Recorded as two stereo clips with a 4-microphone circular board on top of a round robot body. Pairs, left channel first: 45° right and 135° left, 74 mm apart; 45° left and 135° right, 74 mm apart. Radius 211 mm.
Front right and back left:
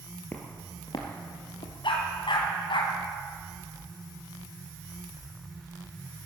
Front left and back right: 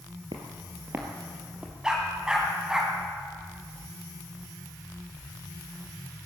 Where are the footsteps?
115° right, 0.6 m; by 1.7 s 60° right, 1.2 m.